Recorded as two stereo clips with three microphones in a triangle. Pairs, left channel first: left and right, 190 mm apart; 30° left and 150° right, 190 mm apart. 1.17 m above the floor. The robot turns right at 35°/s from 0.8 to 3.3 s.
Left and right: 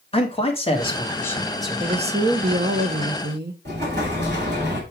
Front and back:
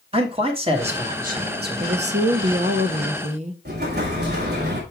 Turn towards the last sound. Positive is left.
turn(degrees=-120)